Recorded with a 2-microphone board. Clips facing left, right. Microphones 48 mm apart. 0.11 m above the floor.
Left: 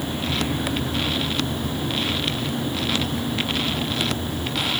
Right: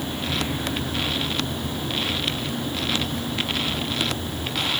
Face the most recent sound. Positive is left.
No sound to turn to.